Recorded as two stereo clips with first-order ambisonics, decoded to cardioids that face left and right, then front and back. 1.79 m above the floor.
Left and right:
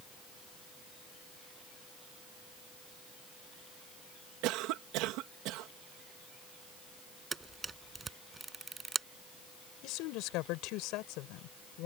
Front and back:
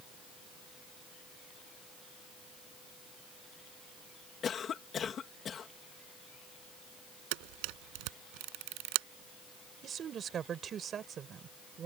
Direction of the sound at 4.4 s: 65° right.